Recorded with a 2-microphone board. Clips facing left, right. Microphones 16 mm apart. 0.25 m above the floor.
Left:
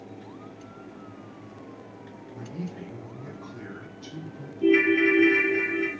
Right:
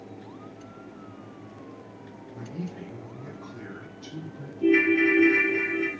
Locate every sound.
2.3 s a man speaking: 20° right (ahead or behind), 2.5 m; by 4.5 s 55° right (ahead or behind), 3 m
4.6 s a ringtone: 10° left (ahead or behind), 0.8 m